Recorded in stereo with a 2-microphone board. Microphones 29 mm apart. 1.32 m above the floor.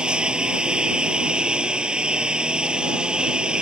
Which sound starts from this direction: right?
A lawn mower, at 0.0 s.